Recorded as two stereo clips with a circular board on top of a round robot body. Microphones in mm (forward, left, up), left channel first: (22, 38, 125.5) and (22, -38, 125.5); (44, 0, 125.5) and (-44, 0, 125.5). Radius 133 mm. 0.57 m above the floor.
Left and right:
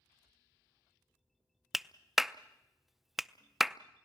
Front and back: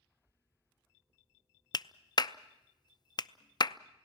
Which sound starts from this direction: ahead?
A clap, at 1.7 s.